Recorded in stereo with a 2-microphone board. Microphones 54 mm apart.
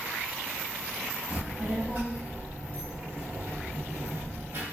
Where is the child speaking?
25° right (ahead or behind), 1.9 m; by 4.6 s 45° right (ahead or behind), 1.3 m.